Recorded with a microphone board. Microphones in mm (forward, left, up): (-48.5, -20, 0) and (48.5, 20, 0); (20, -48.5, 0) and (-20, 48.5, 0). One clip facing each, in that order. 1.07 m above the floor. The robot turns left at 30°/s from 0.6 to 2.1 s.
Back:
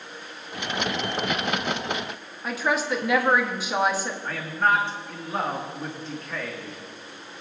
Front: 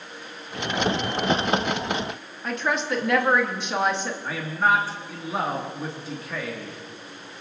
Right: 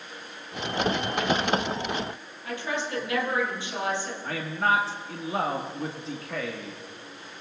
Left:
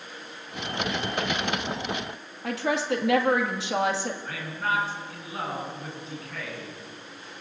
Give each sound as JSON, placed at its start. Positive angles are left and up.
{"t": 2.4, "sound": "a woman speaking", "azimuth_deg": 115, "distance_m": 1.8}
{"t": 4.2, "sound": "a man speaking", "azimuth_deg": -60, "distance_m": 1.8}